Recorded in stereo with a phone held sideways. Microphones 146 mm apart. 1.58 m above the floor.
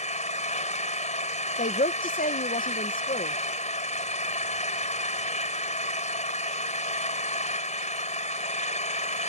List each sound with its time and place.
0.0 s an engine running: 55° left (ahead or behind)
1.6 s a woman speaking: 75° left (ahead or behind)